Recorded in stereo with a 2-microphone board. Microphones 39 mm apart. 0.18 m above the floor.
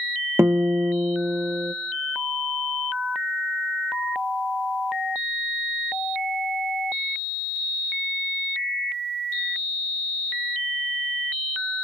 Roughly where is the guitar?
Right.